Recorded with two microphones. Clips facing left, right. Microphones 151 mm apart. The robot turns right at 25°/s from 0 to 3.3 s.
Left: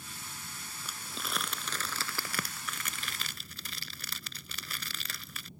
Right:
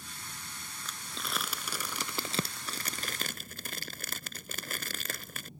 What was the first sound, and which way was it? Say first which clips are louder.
Crumpling: even; 10° left (ahead or behind).